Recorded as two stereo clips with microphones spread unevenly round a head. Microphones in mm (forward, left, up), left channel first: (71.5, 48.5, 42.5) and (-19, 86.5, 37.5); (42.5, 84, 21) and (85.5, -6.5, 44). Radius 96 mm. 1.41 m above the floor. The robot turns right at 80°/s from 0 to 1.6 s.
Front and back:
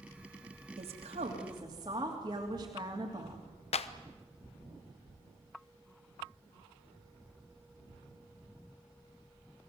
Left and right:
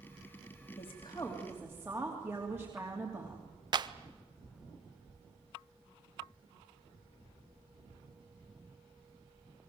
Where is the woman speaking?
150° left, 3 m; by 3.4 s 140° right, 3 m.